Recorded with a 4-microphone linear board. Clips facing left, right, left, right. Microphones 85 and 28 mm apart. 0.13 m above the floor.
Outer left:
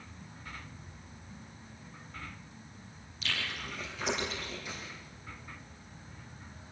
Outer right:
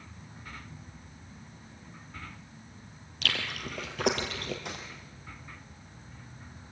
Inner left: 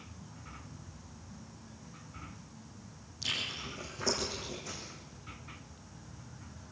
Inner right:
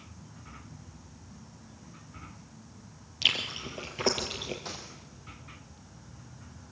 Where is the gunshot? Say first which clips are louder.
Outer right 3 dB, inner right 3 dB; 65° right (ahead or behind), 4.5 m.